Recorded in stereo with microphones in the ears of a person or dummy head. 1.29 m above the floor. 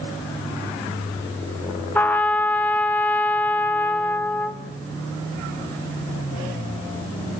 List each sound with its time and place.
1.9 s a trumpet: 5° left (ahead or behind), 0.6 m